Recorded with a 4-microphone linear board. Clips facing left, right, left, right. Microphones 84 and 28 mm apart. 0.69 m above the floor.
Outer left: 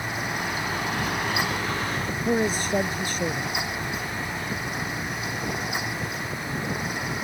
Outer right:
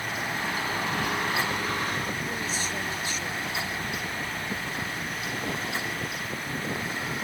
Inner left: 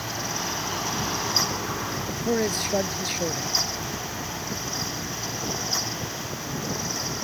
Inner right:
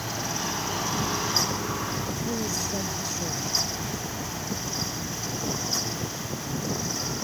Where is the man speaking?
50° left (ahead or behind).